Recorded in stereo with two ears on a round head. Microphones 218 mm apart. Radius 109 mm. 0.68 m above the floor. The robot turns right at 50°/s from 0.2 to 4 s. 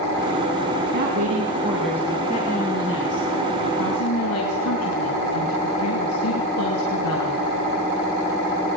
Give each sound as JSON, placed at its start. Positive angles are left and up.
{"t": 0.9, "sound": "a woman speaking", "azimuth_deg": -50, "distance_m": 5.0}